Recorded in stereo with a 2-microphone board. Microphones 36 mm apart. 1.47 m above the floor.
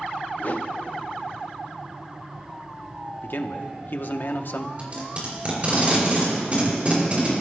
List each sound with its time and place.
0.4 s a whoosh: 55° left (ahead or behind), 0.8 m
3.2 s a man speaking: 60° left (ahead or behind), 0.9 m
4.8 s tape being pulled: 35° right (ahead or behind), 5 m